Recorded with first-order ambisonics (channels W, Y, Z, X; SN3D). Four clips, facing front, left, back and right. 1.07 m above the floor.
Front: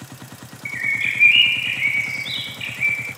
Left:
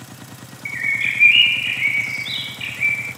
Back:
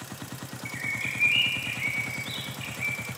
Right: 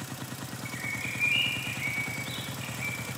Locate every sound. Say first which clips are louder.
0.7 s a bird: left 15 dB, front 10 dB; 55° left, 0.6 m